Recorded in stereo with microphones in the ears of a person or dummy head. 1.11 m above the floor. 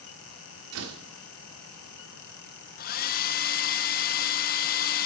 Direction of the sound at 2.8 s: 45° left (ahead or behind).